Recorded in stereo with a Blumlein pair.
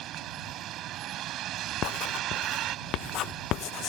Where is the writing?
35° left.